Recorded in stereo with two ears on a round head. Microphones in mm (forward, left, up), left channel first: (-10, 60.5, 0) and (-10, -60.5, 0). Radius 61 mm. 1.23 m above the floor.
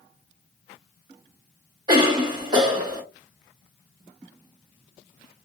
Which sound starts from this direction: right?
A cough, at 1.9 s.